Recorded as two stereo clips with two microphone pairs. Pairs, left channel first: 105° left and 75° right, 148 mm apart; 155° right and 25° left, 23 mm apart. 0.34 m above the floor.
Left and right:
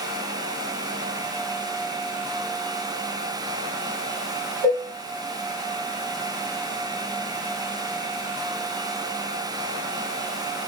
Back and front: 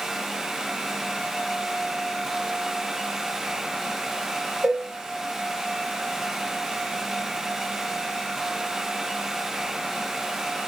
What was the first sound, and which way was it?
Dishes clattering, 55° left.